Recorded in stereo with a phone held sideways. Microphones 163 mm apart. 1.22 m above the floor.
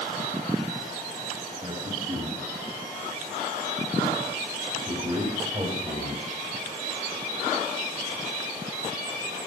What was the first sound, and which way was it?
A man speaking, 60° right (ahead or behind).